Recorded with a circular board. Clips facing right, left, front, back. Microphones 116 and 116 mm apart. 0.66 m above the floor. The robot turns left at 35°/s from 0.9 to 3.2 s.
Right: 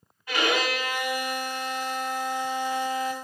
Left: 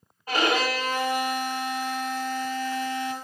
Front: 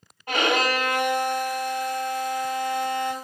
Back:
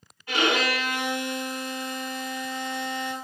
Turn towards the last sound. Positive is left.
turn(degrees=-45)